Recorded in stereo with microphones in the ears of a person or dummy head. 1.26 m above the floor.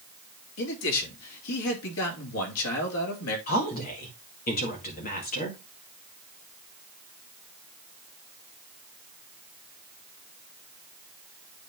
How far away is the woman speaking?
About 2 m.